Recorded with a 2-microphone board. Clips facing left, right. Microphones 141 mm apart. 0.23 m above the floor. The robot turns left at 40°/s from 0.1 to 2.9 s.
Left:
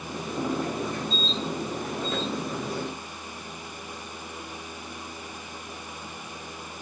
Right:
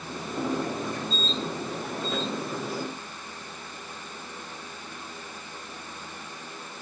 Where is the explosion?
No explosion in this recording.